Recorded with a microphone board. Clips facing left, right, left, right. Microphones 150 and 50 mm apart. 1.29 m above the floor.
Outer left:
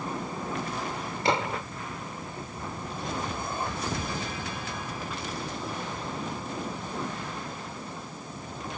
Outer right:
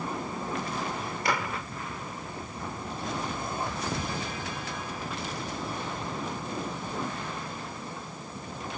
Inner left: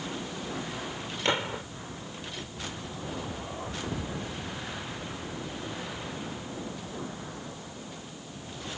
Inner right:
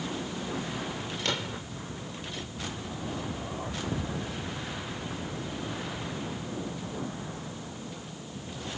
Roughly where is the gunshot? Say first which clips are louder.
Outer left 4 dB, inner left 6 dB; left.